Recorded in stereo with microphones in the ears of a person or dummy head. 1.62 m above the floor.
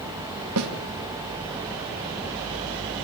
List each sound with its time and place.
0.6 s a snare drum: 80° right, 2.5 m